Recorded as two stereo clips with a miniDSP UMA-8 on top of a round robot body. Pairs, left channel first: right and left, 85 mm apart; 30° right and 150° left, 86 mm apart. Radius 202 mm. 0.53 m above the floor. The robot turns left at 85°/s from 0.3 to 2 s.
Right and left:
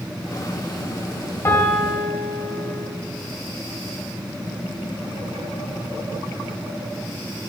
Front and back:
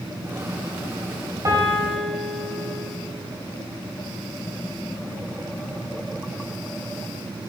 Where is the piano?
155° right, 2 m; by 2.9 s 160° left, 2 m.